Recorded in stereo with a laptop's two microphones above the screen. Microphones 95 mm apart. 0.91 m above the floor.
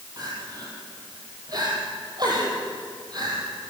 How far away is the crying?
About 5 m.